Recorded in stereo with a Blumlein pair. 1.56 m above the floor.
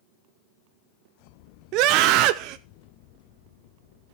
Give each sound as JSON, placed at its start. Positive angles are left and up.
{"t": 1.7, "sound": "a scream", "azimuth_deg": -40, "distance_m": 0.6}